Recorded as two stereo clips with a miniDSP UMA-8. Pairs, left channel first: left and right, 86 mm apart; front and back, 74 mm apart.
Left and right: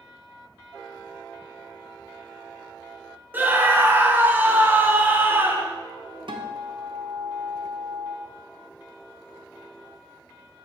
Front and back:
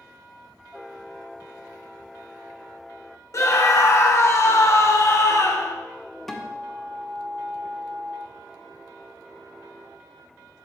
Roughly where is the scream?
Ahead right.